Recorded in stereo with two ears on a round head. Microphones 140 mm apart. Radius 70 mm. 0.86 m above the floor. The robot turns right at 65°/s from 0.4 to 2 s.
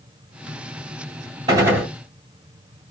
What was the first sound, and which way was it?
A gunshot, 30° right (ahead or behind).